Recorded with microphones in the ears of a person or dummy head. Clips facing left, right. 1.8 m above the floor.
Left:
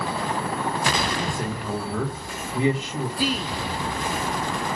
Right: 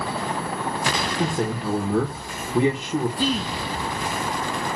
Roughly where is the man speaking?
Right.